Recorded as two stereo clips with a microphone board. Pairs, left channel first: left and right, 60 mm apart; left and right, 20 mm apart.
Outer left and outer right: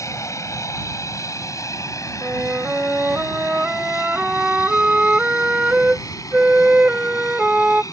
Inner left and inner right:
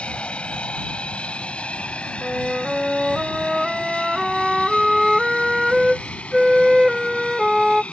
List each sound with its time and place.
0.0 s an aircraft: 60° left (ahead or behind); by 7.9 s 75° left (ahead or behind)
2.2 s a flute: 20° right (ahead or behind)